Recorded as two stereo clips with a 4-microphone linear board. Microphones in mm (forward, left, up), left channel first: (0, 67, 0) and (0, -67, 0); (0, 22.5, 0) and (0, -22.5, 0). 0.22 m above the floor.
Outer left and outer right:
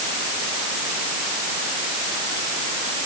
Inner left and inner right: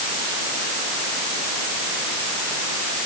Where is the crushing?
No crushing in this recording.